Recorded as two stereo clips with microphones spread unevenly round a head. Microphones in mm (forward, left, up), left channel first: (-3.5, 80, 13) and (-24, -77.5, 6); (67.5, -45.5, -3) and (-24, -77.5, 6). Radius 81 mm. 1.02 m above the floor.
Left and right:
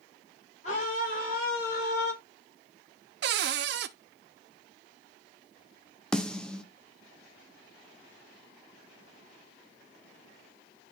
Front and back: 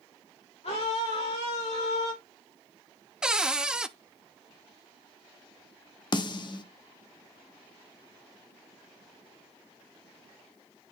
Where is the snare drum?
Straight ahead, 0.7 m.